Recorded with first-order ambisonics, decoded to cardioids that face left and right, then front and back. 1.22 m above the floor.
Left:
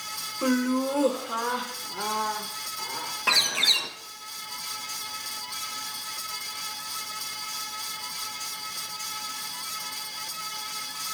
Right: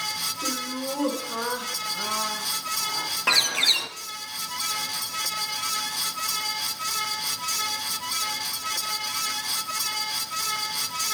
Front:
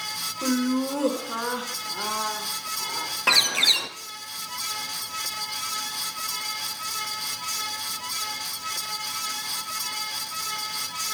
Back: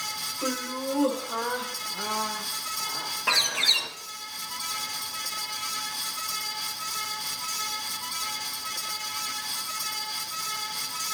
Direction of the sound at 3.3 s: 15° right.